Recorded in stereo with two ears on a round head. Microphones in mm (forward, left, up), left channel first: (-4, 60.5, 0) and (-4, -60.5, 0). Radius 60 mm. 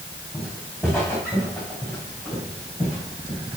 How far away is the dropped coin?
No dropped coin in this recording.